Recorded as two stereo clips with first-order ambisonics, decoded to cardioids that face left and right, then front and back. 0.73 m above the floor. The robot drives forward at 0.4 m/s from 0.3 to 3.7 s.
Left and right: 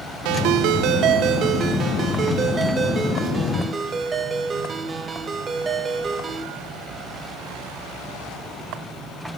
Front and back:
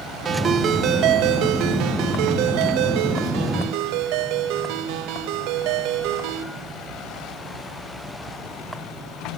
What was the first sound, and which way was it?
A ringtone, 110° right.